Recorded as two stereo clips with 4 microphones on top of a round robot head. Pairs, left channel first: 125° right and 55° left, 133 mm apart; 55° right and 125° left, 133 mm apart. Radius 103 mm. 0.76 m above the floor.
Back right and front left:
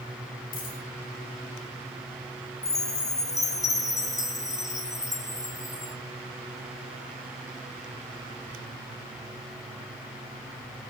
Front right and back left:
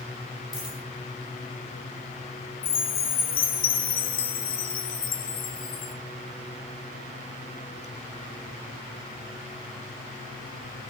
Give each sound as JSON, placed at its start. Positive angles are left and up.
{"t": 0.5, "sound": "a dropped coin", "azimuth_deg": -115, "distance_m": 8.0}
{"t": 2.6, "sound": "a chime", "azimuth_deg": -55, "distance_m": 1.5}